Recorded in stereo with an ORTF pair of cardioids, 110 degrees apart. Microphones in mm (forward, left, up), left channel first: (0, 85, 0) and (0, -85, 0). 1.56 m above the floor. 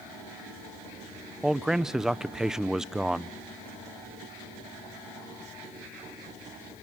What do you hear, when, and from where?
1.4 s a man speaking: 5° right, 0.7 m